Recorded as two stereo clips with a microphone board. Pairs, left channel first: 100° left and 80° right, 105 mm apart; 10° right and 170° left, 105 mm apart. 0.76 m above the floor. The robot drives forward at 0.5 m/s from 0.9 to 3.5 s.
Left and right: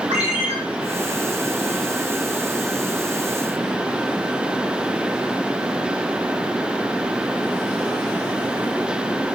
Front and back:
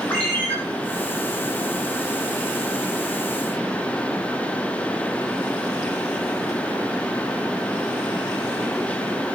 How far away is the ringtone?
About 4 m.